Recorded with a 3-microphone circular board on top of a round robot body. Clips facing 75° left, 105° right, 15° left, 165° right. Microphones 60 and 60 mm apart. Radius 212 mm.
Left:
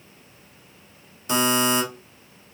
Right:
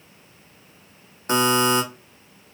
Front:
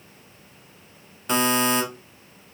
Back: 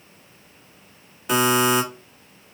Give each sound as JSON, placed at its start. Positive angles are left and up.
{"t": 1.3, "sound": "a buzzer", "azimuth_deg": -80, "distance_m": 1.3}